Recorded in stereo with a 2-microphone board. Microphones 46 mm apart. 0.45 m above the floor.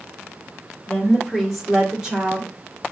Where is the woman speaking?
5° left (ahead or behind), 1.7 m; by 2.5 s 25° right (ahead or behind), 1.5 m.